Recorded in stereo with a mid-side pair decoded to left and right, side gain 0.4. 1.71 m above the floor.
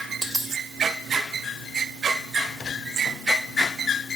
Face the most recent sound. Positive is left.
turn(degrees=-20)